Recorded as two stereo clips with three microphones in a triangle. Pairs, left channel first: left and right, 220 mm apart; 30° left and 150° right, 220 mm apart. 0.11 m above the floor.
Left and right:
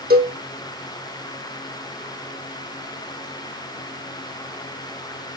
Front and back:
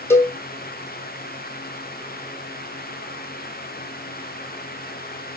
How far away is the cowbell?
About 0.8 m.